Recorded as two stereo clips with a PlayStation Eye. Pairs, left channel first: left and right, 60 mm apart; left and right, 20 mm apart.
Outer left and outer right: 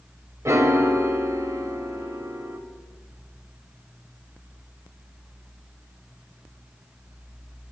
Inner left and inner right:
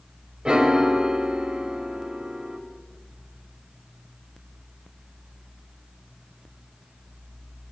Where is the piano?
50° right (ahead or behind), 0.8 m.